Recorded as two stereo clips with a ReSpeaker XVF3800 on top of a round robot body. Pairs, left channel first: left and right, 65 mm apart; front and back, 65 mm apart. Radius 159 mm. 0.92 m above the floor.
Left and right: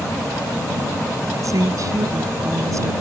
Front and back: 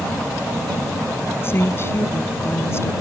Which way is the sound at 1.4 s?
55° right.